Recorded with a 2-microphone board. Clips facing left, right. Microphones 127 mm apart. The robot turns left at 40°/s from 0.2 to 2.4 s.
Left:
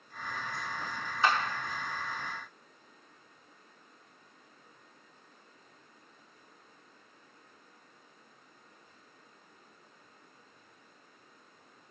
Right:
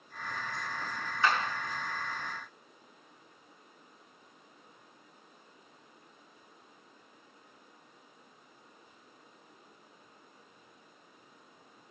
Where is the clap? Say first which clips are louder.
Left 1 dB; 25° left (ahead or behind), 3 m; by 1.4 s 15° left (ahead or behind), 3 m.